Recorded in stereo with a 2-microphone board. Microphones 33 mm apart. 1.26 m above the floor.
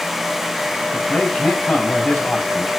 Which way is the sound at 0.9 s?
30° left (ahead or behind).